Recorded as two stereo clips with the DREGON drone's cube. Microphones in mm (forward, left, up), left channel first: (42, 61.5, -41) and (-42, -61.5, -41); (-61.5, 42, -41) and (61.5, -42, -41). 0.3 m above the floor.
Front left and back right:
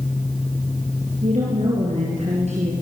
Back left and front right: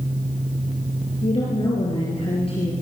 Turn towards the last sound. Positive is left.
turn(degrees=-165)